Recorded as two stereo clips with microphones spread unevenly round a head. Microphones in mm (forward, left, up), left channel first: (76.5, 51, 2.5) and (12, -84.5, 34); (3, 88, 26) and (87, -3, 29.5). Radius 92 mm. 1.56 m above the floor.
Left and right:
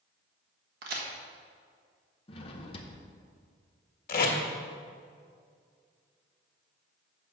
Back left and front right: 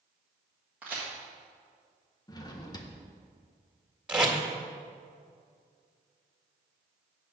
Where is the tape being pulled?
35° left, 1.8 m.